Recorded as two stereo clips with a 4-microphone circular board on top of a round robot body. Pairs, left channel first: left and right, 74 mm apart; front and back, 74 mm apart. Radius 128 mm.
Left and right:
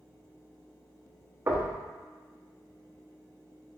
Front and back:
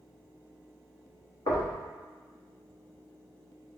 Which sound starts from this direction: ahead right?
Knocking, at 1.5 s.